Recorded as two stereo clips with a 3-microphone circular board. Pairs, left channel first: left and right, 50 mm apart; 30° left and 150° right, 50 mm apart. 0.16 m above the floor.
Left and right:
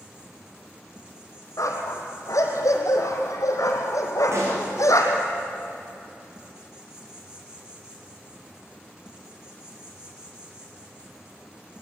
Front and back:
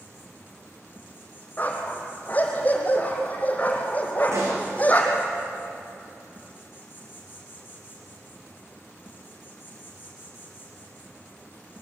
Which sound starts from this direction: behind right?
A pop, at 4.3 s.